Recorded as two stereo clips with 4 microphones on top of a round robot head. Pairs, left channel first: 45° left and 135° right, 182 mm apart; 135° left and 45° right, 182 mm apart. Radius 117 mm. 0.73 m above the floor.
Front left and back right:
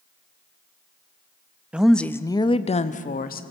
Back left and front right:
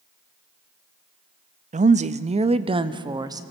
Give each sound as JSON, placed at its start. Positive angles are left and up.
{"t": 1.7, "sound": "a woman speaking", "azimuth_deg": -55, "distance_m": 0.7}